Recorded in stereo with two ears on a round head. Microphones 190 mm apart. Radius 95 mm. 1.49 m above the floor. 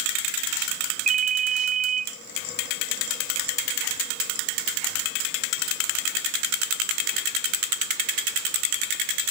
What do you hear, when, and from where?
1.1 s a ringtone: 35° right (ahead or behind), 0.6 m